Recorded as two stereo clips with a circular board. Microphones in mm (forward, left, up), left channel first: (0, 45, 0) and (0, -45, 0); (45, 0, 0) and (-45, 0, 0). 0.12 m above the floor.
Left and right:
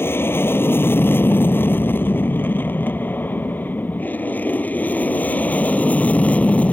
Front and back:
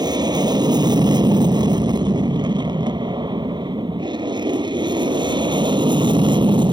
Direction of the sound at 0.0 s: 150° left.